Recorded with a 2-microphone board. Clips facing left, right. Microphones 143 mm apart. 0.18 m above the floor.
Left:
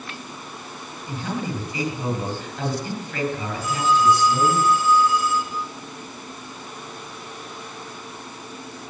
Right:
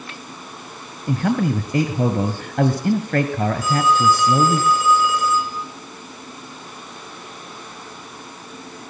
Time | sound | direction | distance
1.1 | a man speaking | 60° right (ahead or behind) | 3 m
3.6 | a phone ringing | 85° right | 7.5 m